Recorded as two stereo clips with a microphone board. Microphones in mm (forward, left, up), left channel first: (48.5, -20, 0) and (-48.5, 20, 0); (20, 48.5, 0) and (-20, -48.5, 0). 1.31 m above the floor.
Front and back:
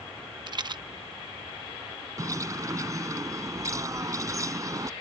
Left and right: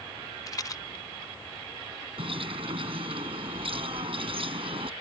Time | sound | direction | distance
0.5 | a rattle | 120° left | ?
2.2 | a bird | 145° right | ?